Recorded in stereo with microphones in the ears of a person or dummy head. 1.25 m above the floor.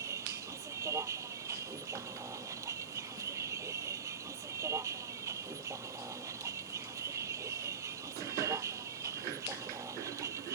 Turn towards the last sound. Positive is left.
turn(degrees=-15)  # may be behind; listen again after turning